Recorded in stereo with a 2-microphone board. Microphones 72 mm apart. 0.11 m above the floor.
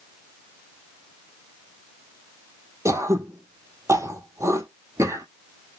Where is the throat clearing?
40° right (ahead or behind), 0.9 m.